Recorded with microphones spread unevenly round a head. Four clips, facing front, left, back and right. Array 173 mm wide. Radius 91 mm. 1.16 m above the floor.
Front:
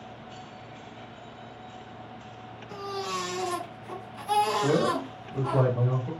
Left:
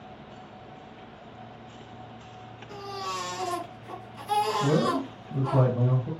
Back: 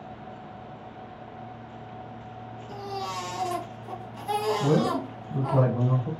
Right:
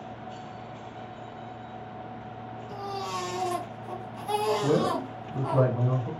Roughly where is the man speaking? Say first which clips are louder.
Even, back 1 dB; behind.